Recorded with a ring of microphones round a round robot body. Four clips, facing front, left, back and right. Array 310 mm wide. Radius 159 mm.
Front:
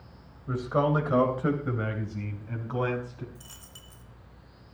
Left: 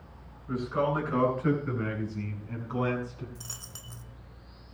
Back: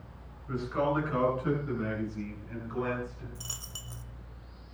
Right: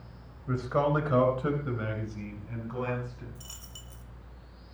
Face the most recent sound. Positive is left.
turn(degrees=140)